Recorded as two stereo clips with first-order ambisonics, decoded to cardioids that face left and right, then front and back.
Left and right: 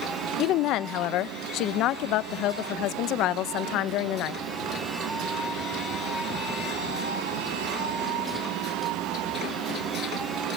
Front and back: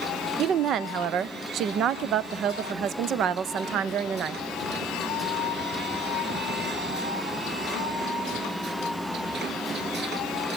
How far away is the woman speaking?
About 0.6 m.